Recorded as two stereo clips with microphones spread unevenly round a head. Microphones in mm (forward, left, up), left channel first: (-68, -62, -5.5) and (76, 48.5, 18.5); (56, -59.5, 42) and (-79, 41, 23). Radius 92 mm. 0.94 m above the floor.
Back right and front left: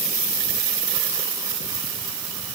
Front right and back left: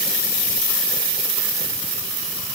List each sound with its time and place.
Only background noise.